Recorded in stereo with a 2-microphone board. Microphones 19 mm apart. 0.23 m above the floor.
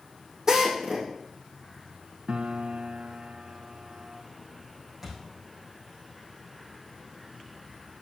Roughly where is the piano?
Right.